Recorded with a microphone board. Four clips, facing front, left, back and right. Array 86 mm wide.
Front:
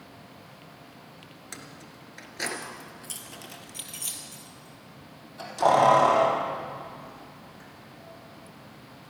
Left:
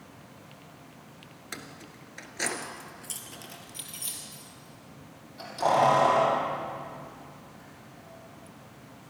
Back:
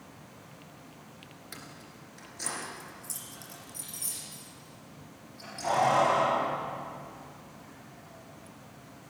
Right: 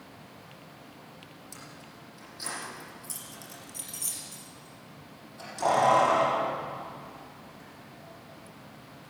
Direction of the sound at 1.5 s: 75° left.